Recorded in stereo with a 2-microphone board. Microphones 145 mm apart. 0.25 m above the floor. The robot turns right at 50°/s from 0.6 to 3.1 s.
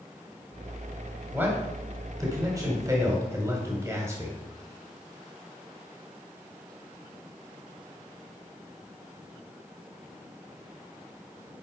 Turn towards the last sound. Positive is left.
turn(degrees=-20)  # may be behind; listen again after turning